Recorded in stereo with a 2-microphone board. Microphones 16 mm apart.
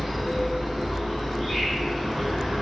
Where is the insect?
55° right (ahead or behind), 1.3 m.